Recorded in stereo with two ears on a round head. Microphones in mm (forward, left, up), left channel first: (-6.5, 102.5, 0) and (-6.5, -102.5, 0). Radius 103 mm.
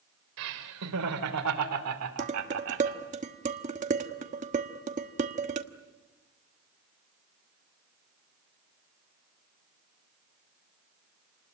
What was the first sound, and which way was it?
Laughter, 75° right (ahead or behind).